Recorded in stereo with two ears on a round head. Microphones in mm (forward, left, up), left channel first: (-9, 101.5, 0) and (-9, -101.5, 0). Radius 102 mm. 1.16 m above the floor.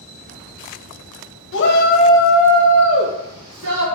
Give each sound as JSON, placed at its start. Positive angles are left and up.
{"t": 1.5, "sound": "a shout", "side_deg": 55, "distance_m": 0.8}